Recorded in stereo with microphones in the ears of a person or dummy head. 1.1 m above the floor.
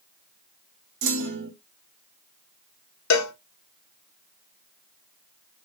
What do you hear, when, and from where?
1.0 s a clunk: 65° right (ahead or behind), 1.4 m
3.1 s a cowbell: 85° left, 0.9 m